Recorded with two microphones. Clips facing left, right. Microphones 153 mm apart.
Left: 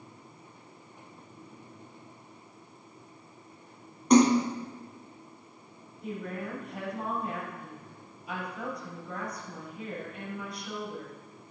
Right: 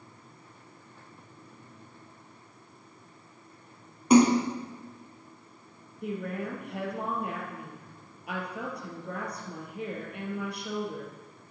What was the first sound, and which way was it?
A splash, 5° right (ahead or behind).